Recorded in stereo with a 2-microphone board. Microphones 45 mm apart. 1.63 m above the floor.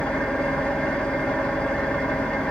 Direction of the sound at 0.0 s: 20° left (ahead or behind).